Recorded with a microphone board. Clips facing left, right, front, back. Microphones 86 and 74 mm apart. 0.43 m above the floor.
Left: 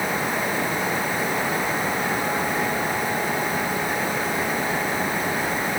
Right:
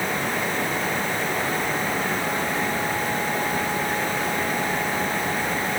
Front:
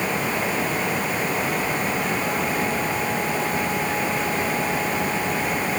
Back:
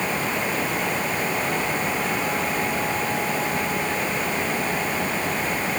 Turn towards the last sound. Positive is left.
No sound to turn to.